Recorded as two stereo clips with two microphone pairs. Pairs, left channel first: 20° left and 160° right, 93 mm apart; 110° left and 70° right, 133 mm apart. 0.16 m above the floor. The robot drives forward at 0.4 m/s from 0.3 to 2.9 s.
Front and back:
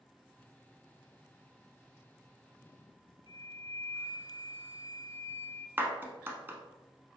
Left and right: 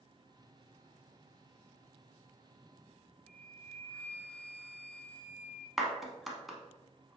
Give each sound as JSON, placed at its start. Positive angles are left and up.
{"t": 3.3, "sound": "a flute", "azimuth_deg": 30, "distance_m": 0.6}
{"t": 5.8, "sound": "a clap", "azimuth_deg": -155, "distance_m": 0.8}